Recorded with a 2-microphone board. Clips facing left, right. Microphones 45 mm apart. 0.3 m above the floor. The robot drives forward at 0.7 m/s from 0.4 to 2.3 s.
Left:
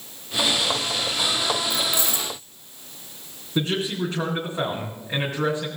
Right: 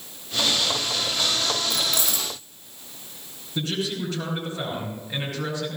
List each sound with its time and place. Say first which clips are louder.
1.7 s keys jangling: left 1 dB; 55° right (ahead or behind), 5 m; by 2.3 s 50° right (ahead or behind), 5.5 m
3.5 s a man speaking: left 3 dB; 40° left (ahead or behind), 3.5 m